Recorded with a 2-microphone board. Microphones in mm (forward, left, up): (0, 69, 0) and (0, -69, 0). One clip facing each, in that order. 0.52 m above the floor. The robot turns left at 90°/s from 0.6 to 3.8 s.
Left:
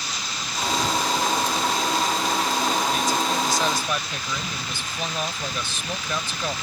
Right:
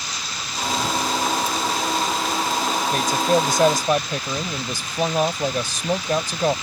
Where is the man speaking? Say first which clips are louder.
Right 4 dB; 55° right; by 6.5 s 135° right.